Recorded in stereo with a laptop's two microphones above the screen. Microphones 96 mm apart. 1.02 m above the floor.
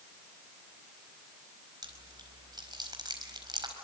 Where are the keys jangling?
No keys jangling in this recording.